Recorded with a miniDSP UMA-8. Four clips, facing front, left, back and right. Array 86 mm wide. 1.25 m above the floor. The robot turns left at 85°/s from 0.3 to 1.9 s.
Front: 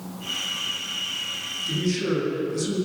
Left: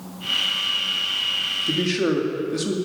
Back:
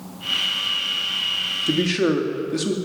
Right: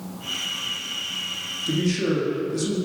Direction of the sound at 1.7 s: 170° left.